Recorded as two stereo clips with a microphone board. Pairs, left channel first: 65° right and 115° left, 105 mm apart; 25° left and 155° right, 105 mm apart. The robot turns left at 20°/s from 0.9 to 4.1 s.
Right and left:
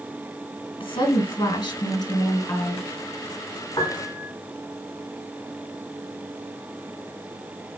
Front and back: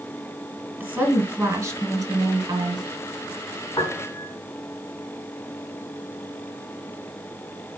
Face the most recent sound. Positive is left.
turn(degrees=-30)